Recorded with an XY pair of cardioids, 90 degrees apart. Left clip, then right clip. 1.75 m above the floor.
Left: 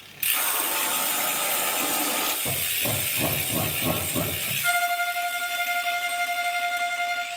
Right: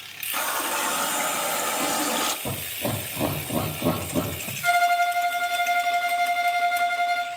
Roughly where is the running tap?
Ahead right.